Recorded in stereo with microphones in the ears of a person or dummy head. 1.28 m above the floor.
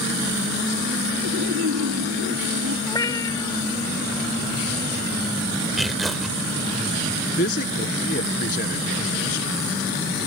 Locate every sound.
1.2 s laughter: 85° right
2.9 s a cat meowing: 20° left (ahead or behind)
5.8 s tearing paper: centre (ahead or behind)
7.4 s a man speaking: 40° left (ahead or behind)